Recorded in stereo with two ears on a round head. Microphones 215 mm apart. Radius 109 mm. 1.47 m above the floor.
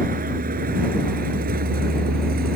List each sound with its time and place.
0.0 s a vehicle: 35° right (ahead or behind); by 2.6 s 40° right (ahead or behind)